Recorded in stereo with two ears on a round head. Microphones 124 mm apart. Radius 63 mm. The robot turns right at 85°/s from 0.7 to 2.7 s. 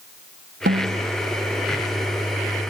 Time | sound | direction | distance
0.7 | a snare drum | 75° right | ?